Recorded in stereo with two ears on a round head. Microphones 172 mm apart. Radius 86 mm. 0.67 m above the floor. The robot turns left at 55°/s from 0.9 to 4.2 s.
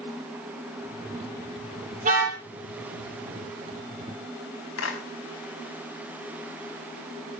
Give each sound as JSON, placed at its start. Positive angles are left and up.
{"t": 2.0, "sound": "a car horn", "side_deg": -40, "distance_m": 9.5}
{"t": 4.8, "sound": "a clap", "side_deg": 80, "distance_m": 5.0}